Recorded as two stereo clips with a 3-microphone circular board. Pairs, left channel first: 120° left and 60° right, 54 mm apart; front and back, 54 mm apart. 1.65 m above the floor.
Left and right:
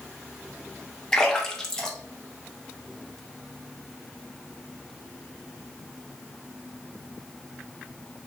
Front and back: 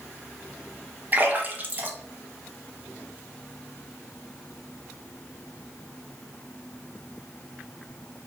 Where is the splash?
175° right, 0.9 m.